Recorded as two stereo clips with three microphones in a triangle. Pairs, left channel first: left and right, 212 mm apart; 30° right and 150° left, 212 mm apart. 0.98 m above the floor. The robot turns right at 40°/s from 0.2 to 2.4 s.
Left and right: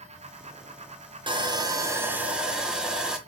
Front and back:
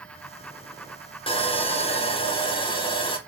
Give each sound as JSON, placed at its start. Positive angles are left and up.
{"t": 1.3, "sound": "sawing", "azimuth_deg": -55, "distance_m": 0.6}